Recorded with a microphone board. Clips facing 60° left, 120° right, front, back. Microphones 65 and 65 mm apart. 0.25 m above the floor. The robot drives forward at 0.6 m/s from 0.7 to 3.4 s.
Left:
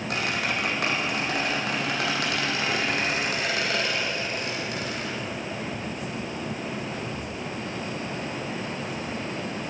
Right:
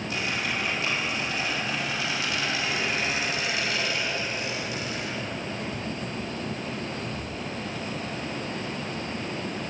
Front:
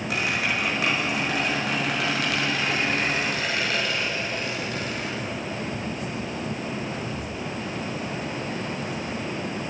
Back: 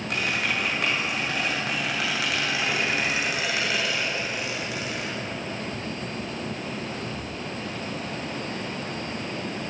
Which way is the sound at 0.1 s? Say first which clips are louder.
Left 3 dB, front 1 dB; 85° left.